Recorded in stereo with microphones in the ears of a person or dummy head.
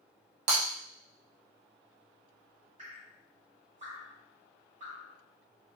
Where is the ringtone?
No ringtone in this recording.